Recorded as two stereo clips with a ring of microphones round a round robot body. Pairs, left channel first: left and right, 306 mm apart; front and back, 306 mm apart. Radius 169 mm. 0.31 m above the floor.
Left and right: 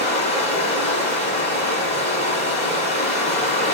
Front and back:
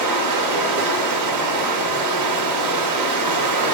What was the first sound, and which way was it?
Running water, 155° left.